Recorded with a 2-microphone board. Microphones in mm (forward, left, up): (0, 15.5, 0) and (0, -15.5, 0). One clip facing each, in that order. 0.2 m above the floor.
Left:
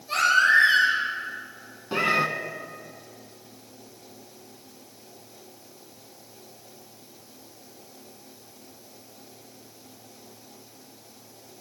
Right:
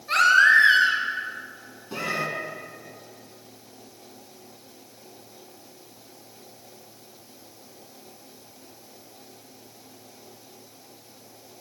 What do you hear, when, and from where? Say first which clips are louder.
0.1 s a baby crying: right 3 dB; 55° right (ahead or behind), 2.5 m
1.9 s a cat meowing: left 6 dB; 35° left (ahead or behind), 0.5 m